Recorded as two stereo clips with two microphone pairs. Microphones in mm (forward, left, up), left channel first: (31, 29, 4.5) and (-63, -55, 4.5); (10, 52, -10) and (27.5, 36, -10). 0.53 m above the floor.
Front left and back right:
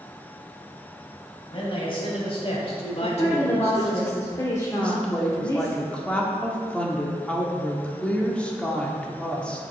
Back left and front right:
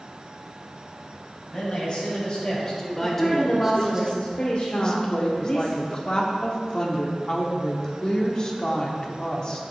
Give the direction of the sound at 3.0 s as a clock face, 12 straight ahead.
9 o'clock.